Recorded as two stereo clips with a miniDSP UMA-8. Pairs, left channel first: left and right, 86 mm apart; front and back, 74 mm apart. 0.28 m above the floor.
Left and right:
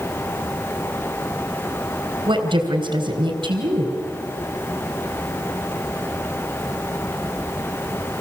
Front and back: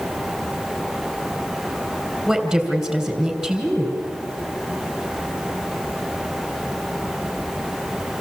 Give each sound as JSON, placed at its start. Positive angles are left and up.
{"t": 2.3, "sound": "a woman speaking", "azimuth_deg": -95, "distance_m": 3.5}